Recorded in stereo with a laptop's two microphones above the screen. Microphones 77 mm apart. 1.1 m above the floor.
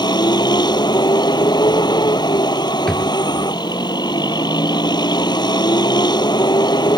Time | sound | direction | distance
0.0 | a vehicle | 65° left (ahead or behind) | ?
2.9 | a drawer | 5° left (ahead or behind) | ?